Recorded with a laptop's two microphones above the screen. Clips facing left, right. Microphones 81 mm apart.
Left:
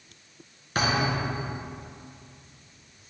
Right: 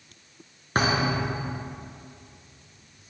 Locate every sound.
0.8 s a thud: 40° right (ahead or behind), 1.4 m